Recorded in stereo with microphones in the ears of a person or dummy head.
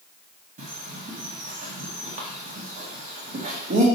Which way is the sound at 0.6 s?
30° right (ahead or behind).